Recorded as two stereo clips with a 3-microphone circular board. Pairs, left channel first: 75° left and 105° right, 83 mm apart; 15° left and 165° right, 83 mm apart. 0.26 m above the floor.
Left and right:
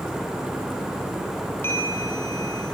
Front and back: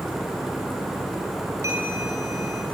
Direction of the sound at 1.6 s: 140° left.